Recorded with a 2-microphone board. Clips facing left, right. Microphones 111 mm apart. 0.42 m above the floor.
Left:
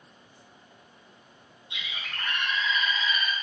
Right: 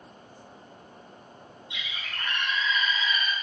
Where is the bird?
40° left (ahead or behind), 1.1 m.